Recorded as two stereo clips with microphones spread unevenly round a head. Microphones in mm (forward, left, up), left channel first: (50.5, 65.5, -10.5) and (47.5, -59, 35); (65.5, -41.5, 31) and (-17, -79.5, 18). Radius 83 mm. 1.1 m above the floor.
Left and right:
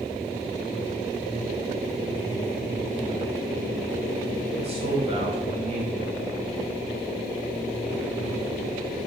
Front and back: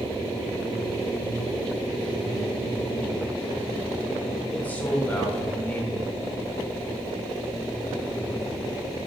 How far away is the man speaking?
About 3.5 m.